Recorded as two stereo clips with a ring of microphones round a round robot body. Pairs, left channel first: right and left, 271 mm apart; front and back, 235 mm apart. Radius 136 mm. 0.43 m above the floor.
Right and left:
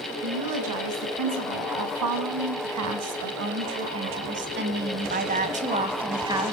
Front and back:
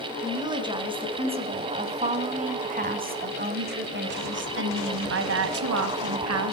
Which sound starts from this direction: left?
A woman speaking, at 0.2 s.